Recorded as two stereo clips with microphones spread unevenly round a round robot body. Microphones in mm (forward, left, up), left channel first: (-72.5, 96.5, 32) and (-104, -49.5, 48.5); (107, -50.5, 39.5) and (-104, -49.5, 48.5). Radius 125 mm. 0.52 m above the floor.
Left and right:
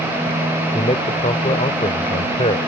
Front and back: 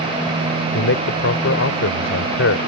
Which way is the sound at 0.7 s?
20° left.